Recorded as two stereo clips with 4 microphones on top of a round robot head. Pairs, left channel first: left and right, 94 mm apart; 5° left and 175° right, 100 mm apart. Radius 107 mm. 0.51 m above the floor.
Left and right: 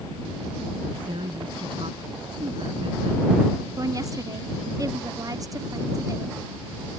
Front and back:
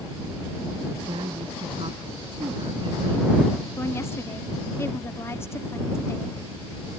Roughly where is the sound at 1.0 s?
Behind right.